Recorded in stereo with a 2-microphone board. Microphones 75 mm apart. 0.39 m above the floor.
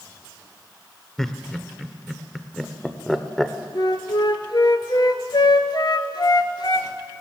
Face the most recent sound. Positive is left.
turn(degrees=65)  # may be behind; listen again after turning